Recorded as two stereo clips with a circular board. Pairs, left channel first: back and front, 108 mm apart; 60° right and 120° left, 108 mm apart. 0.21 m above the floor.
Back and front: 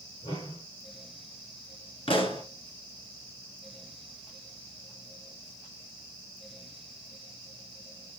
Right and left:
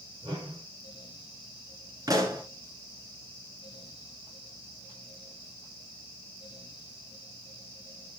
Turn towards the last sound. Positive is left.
turn(degrees=170)